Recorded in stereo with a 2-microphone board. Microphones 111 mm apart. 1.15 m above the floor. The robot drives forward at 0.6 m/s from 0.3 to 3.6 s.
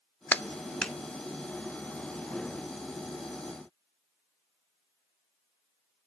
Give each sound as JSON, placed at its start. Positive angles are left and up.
{"t": 0.3, "sound": "a clap", "side_deg": 15, "distance_m": 0.5}